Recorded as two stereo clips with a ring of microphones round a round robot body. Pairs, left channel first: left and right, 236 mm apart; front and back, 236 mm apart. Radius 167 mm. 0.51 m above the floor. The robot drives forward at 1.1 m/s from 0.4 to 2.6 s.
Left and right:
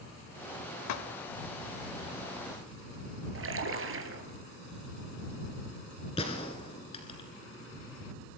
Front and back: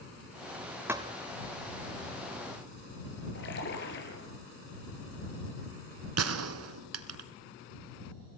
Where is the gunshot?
165° left, 1.7 m.